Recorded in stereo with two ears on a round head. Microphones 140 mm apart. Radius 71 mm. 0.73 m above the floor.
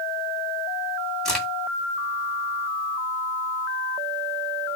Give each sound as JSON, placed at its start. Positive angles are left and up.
{"t": 1.2, "sound": "a crack", "side_deg": 5, "distance_m": 2.5}